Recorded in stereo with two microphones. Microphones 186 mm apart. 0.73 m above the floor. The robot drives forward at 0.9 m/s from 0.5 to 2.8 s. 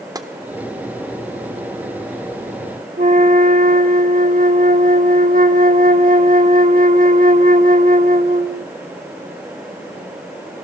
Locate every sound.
0.1 s tapping: 20° right (ahead or behind), 0.8 m
3.0 s a flute: 50° right (ahead or behind), 1.0 m